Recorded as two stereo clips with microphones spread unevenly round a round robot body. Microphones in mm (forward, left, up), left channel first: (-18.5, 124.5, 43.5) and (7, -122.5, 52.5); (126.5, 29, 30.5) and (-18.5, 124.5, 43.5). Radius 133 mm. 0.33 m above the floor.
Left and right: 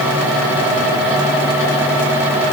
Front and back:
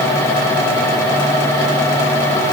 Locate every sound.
Only background noise.